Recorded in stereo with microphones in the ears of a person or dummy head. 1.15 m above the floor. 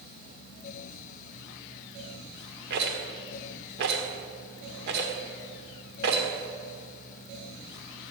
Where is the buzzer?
No buzzer in this recording.